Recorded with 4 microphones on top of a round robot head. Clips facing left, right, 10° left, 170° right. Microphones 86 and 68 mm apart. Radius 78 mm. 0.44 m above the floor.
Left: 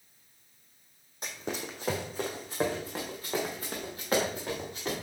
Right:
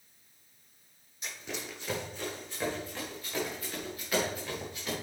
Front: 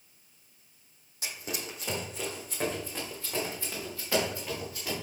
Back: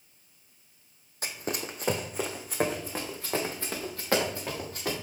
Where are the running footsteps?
145° left, 1.3 m; by 4.9 s 150° left, 4 m.